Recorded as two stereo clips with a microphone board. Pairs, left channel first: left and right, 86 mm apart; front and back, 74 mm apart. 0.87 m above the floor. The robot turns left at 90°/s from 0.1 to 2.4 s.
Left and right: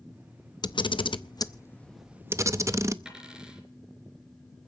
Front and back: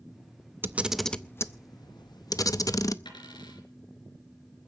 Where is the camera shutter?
120° left, 0.6 m; by 3.0 s 35° right, 0.6 m.